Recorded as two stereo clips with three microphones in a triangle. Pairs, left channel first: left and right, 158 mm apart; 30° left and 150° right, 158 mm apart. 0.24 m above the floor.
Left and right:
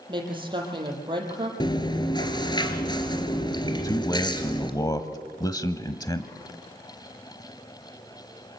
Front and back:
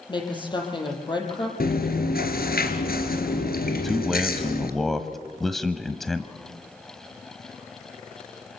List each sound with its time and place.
0.1 s a woman speaking: 30° right, 7.5 m
1.6 s chewing: 30° left, 3 m
3.7 s a man speaking: 115° left, 1.2 m